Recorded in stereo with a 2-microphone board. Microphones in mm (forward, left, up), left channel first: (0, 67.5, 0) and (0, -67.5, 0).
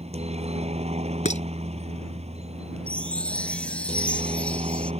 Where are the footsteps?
I don't hear footsteps.